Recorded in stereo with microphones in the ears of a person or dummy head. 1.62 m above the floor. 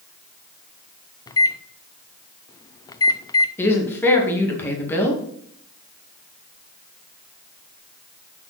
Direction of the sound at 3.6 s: 5° left (ahead or behind).